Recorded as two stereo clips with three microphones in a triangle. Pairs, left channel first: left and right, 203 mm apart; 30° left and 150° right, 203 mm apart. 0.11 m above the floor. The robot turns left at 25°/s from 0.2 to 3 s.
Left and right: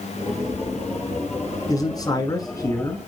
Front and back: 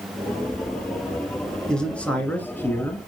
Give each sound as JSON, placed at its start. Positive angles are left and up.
{"t": 1.7, "sound": "a man speaking", "azimuth_deg": 110, "distance_m": 1.6}